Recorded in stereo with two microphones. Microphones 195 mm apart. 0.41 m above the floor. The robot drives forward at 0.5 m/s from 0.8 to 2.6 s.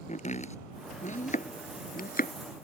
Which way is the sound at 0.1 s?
40° left (ahead or behind).